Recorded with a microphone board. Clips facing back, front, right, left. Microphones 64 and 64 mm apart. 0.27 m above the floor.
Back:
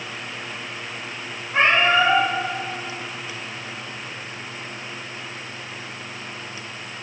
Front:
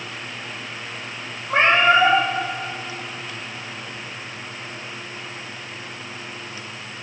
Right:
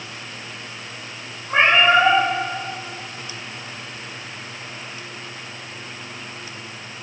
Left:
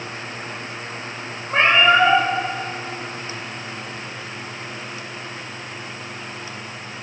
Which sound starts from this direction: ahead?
A cat meowing, at 1.5 s.